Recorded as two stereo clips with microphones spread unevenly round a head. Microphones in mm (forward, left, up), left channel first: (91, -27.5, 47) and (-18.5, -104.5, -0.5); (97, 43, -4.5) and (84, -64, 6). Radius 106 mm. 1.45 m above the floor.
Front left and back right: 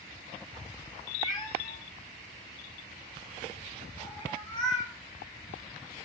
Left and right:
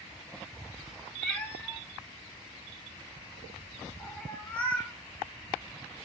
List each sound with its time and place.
1.2 s a cat meowing: 5° left, 1.8 m